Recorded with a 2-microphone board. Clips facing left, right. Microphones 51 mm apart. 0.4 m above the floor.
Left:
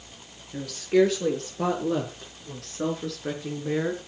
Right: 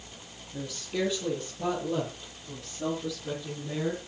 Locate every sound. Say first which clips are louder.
0.5 s a woman speaking: left 11 dB; 75° left (ahead or behind), 7 m; by 4.0 s 55° left (ahead or behind), 5 m